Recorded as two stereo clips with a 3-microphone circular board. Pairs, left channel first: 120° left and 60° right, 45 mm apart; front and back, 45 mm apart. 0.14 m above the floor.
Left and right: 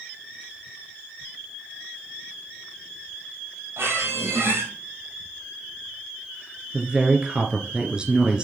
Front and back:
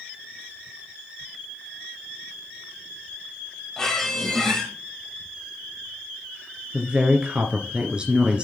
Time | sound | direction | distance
3.8 | a squeak | 75° right | 3.5 m
6.7 | a woman speaking | 125° right | 2.0 m